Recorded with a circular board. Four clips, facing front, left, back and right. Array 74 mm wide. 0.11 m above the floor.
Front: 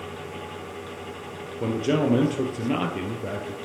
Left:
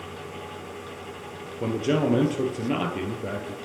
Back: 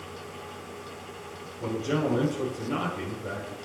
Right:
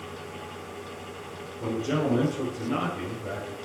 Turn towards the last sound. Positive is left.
turn(degrees=45)